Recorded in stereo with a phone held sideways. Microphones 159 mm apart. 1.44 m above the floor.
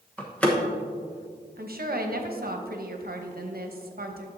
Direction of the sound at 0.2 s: 5° left (ahead or behind).